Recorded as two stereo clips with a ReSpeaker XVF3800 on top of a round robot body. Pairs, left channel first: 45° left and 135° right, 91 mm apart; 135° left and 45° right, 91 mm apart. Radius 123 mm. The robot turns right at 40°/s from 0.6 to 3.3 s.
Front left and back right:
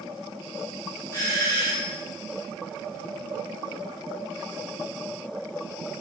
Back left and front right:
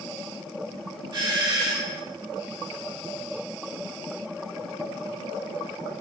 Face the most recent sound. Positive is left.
turn(degrees=70)